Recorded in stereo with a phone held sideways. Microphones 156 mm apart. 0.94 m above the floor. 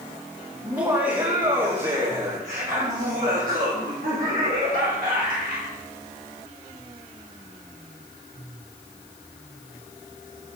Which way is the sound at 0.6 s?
20° right (ahead or behind).